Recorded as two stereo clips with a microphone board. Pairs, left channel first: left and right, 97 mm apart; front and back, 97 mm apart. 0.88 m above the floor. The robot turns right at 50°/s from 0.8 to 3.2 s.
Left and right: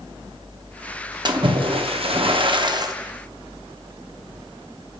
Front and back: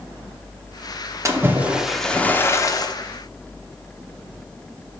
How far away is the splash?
About 0.7 m.